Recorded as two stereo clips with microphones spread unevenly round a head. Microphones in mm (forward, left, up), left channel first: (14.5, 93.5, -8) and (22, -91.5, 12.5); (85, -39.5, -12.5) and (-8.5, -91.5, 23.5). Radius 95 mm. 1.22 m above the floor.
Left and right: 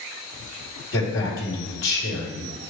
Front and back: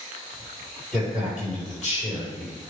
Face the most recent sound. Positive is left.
turn(degrees=125)